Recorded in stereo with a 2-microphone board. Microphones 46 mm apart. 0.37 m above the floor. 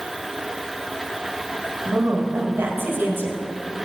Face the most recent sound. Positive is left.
turn(degrees=-50)  # may be behind; listen again after turning